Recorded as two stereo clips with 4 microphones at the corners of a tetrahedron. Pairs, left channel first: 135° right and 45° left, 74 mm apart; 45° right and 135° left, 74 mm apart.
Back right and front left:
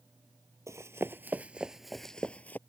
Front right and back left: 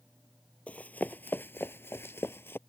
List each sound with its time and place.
0.7 s running footsteps: 20° left; by 2.6 s 85° right